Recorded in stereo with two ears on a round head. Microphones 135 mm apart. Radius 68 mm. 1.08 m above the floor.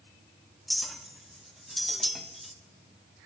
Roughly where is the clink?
Centre.